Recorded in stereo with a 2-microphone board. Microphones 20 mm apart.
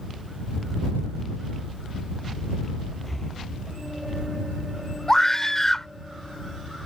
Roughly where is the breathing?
Centre.